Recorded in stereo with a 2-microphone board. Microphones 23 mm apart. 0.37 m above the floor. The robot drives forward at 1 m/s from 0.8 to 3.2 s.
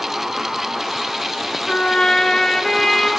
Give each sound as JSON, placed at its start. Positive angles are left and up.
{"t": 1.7, "sound": "a trumpet", "side_deg": 45, "distance_m": 1.2}